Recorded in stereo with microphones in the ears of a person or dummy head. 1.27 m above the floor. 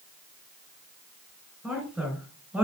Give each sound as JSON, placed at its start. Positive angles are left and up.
{"t": 1.6, "sound": "a woman speaking", "side_deg": -5, "distance_m": 3.5}